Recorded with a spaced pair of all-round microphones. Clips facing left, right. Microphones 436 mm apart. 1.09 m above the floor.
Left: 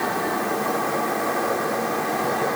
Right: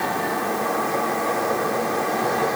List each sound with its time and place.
Only background noise.